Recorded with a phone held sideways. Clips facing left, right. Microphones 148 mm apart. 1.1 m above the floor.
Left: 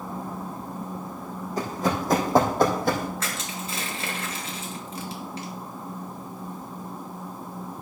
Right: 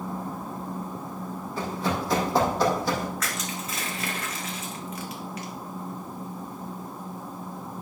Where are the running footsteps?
40° left (ahead or behind), 3.5 m; by 3.1 s 55° left (ahead or behind), 3 m.